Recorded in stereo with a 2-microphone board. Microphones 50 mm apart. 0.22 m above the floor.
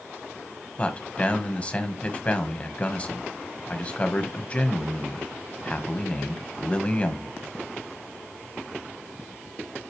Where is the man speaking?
25° left (ahead or behind), 1.2 m.